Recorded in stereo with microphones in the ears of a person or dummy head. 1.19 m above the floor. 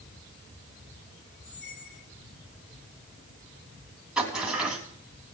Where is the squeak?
70° left (ahead or behind), 2 m.